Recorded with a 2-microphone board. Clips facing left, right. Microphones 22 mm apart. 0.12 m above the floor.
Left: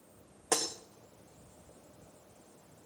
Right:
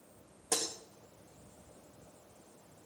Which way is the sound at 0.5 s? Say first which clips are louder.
Left 3 dB; 85° left.